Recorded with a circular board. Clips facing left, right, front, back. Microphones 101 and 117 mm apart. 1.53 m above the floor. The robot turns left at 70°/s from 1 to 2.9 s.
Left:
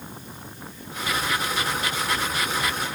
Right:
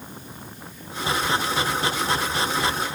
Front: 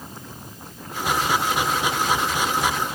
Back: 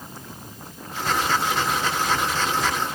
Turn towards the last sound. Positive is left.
No sound to turn to.